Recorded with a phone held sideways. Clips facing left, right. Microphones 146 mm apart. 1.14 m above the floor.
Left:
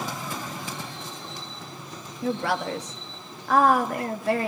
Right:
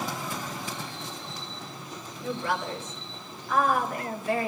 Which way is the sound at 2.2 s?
70° left (ahead or behind).